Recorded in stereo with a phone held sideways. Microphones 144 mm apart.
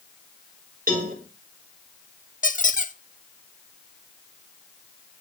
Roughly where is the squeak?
Left.